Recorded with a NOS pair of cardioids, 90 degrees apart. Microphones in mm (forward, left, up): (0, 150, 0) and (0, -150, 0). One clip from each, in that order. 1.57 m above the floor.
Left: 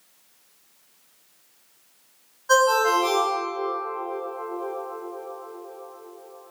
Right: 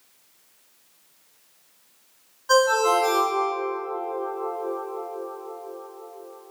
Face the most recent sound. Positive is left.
turn(degrees=-5)